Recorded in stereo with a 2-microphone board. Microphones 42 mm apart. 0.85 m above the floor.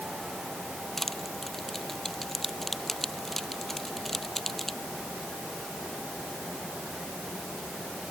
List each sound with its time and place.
1.0 s crushing: 5° left (ahead or behind)